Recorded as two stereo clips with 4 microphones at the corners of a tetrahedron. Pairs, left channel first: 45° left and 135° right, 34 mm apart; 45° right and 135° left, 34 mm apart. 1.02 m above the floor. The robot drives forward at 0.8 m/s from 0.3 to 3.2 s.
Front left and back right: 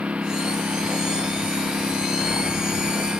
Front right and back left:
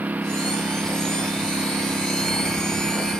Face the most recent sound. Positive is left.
turn(degrees=175)